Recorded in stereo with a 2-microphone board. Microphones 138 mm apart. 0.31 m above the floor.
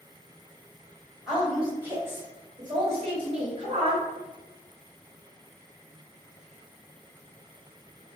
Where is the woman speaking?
5° right (ahead or behind), 1.8 m; by 4.1 s 50° right (ahead or behind), 2.0 m.